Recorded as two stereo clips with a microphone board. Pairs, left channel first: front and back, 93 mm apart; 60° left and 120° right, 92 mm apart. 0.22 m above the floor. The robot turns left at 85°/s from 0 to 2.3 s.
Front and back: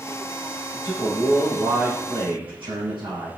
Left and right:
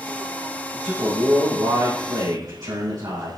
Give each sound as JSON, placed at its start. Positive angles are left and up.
{"t": 0.7, "sound": "a man speaking", "azimuth_deg": -30, "distance_m": 7.5}